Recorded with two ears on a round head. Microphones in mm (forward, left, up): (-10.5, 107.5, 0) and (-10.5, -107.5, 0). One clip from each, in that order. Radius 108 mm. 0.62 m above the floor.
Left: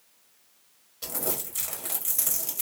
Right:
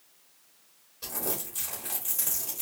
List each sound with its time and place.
1.0 s crumpling: 20° left (ahead or behind), 1.1 m